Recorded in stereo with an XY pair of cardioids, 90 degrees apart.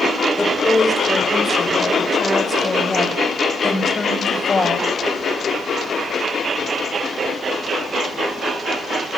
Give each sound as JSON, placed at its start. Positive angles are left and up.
{"t": 0.4, "sound": "a woman speaking", "azimuth_deg": 10, "distance_m": 5.5}